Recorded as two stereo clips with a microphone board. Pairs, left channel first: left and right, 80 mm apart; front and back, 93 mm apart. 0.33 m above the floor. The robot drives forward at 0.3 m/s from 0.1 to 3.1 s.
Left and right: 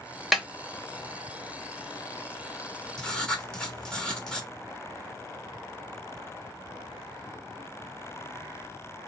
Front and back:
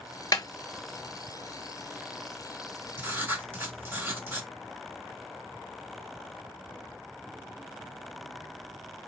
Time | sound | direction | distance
0.3 | a snare drum | 5° right | 0.8 m
3.0 | writing | 155° left | 1.2 m